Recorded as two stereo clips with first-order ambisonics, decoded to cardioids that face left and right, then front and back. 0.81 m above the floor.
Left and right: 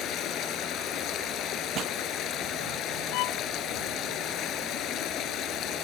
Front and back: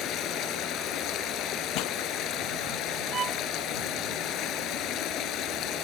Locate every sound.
0.0 s running water: 45° left
1.8 s a pop: 30° right
3.1 s a violin: 115° left